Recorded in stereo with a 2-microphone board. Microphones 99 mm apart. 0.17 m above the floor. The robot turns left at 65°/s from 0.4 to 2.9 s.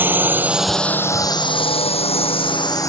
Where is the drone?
20° right (ahead or behind); by 2.9 s 30° left (ahead or behind).